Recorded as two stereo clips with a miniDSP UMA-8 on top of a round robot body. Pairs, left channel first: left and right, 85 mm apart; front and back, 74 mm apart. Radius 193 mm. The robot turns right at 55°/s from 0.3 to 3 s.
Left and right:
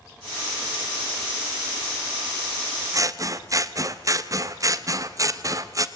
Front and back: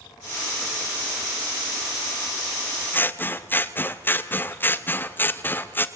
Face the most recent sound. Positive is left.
turn(degrees=-55)